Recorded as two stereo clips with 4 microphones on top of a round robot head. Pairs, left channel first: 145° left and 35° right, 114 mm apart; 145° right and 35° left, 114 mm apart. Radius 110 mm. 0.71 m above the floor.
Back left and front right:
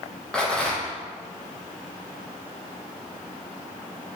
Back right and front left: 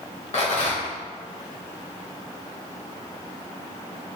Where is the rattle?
130° right, 1.4 m.